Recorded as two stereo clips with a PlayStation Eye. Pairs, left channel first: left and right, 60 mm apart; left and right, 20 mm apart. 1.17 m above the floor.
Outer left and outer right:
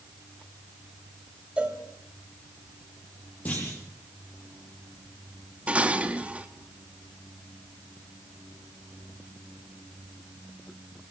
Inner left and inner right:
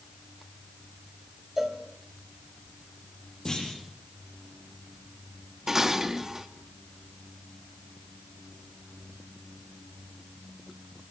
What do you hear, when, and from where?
1.6 s a cowbell: 20° right (ahead or behind), 3 m
3.5 s a clunk: 25° left (ahead or behind), 8 m
5.7 s dishes clattering: 20° right (ahead or behind), 1.3 m